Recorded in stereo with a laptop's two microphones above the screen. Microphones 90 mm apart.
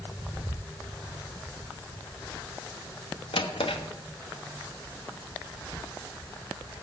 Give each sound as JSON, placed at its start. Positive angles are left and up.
{"t": 3.3, "sound": "a drawer", "side_deg": 85, "distance_m": 0.8}